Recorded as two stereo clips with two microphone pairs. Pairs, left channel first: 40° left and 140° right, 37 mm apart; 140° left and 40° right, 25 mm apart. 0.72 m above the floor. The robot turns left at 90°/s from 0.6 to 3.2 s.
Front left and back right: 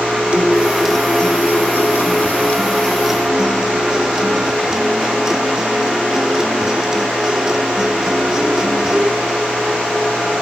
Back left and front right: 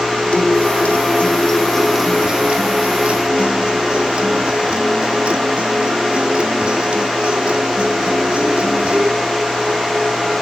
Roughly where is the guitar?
Behind.